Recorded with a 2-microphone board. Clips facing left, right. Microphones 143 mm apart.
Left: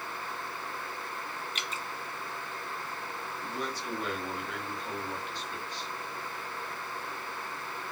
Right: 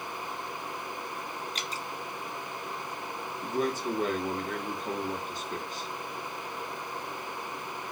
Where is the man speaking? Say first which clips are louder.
Right 9 dB; 45° right (ahead or behind), 0.8 m.